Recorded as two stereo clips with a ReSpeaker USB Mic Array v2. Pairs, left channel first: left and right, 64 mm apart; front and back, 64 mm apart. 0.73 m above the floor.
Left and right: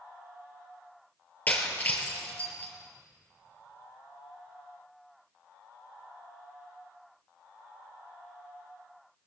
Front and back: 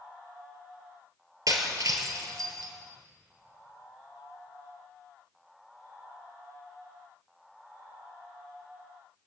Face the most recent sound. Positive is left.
turn(degrees=155)